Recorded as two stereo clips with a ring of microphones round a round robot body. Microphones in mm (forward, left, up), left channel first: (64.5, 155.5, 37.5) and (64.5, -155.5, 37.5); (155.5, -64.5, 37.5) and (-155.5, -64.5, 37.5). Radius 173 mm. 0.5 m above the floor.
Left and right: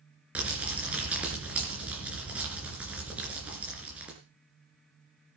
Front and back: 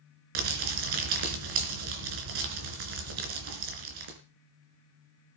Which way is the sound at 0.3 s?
175° right.